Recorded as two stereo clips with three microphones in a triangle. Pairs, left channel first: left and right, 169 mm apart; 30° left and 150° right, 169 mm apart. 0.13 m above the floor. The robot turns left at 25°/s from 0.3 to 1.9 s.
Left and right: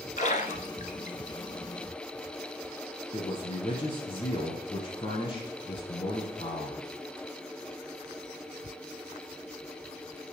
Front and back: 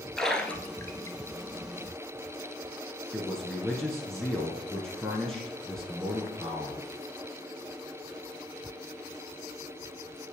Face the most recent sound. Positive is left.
turn(degrees=115)